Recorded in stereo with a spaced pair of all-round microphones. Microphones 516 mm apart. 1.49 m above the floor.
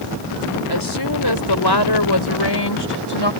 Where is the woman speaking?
45° left (ahead or behind); by 3.3 s 50° left (ahead or behind).